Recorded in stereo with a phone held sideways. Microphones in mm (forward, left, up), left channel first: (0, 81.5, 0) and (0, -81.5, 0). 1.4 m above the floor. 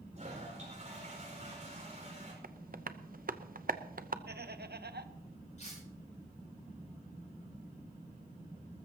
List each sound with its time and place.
0.1 s a toilet flushing: 45° right (ahead or behind), 5 m
2.4 s tapping: 60° right (ahead or behind), 0.7 m
4.3 s laughter: 80° right, 1.0 m
5.6 s cutlery clinking: 45° left (ahead or behind), 8.5 m